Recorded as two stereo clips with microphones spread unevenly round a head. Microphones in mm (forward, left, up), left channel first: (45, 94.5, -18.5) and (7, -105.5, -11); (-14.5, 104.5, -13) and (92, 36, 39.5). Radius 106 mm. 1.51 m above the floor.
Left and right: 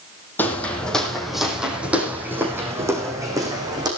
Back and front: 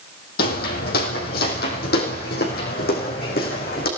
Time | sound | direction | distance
0.4 | footsteps | 160° left | 4 m